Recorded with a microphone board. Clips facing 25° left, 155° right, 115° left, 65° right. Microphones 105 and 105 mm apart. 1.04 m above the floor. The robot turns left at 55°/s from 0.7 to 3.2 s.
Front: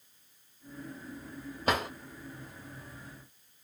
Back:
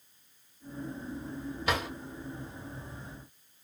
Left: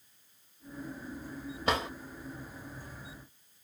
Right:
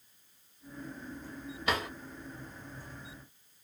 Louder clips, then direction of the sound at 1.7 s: Front 2 dB, left 2 dB; 65° left.